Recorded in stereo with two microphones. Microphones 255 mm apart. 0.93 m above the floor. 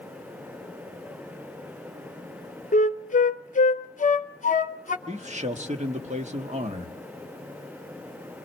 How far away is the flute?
About 0.8 m.